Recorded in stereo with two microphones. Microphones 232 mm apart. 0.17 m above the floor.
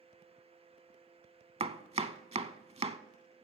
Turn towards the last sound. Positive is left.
turn(degrees=-25)  # may be behind; listen again after turning